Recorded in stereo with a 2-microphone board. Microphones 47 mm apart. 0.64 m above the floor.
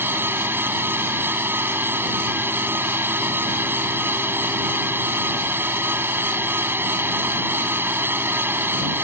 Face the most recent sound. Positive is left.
turn(degrees=-55)  # may be behind; listen again after turning